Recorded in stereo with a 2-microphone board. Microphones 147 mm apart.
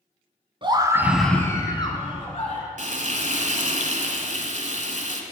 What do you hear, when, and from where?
0.6 s a scream: 35° right (ahead or behind), 1.2 m; by 2.6 s 45° left (ahead or behind), 2.5 m
2.8 s frying: 55° right (ahead or behind), 1.0 m